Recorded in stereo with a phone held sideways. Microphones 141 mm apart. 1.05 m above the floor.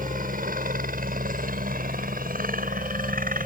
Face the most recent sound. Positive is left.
turn(degrees=-70)  # may be behind; listen again after turning